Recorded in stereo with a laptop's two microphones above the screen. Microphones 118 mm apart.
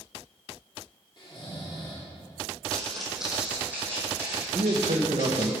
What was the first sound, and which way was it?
Snoring, 40° left (ahead or behind).